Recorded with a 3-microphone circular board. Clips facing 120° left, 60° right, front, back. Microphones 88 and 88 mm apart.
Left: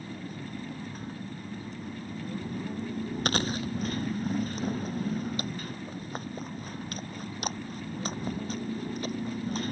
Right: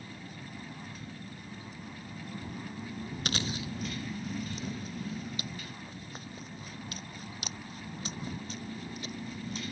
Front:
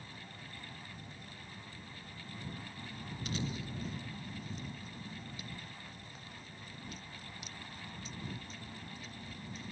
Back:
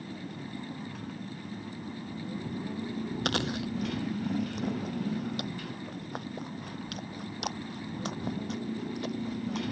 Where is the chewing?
165° left.